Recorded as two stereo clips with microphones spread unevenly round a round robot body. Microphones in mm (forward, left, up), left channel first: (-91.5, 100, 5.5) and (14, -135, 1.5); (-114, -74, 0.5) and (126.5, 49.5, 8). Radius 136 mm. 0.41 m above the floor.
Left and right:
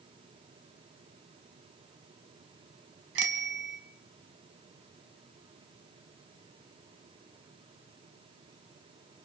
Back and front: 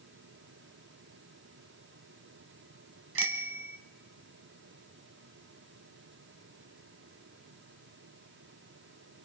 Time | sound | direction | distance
3.1 | a bicycle bell | 20° right | 2.5 m